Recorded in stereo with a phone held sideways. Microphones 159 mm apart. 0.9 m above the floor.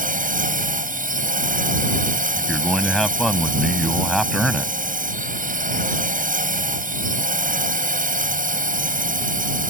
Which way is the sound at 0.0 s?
60° right (ahead or behind).